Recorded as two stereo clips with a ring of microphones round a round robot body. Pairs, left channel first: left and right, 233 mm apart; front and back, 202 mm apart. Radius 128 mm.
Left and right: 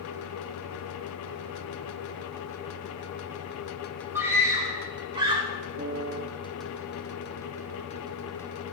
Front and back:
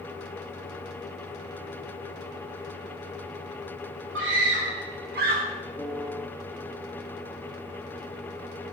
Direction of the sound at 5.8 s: 95° right.